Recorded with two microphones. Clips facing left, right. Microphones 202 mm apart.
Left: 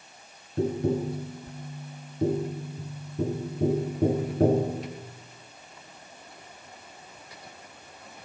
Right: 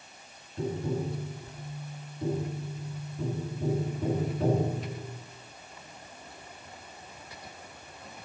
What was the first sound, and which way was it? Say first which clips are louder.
Tapping: left 6 dB; 50° left (ahead or behind).